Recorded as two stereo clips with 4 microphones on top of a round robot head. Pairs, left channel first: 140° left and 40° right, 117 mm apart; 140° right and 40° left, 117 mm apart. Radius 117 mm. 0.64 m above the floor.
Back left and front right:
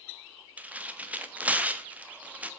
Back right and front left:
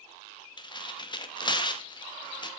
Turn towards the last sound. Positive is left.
turn(degrees=-115)